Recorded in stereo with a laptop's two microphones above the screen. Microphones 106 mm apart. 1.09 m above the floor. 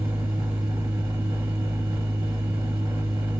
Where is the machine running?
30° right (ahead or behind), 1.8 m.